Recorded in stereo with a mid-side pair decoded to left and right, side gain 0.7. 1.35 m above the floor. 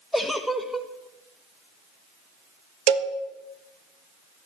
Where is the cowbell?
60° right, 1.3 m.